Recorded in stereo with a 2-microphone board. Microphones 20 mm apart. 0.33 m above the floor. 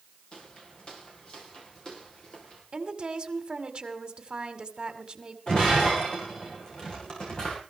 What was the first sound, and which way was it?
Footsteps, 50° left (ahead or behind).